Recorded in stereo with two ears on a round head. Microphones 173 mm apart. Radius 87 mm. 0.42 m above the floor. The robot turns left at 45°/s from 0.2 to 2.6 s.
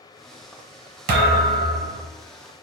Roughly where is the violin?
I don't hear a violin.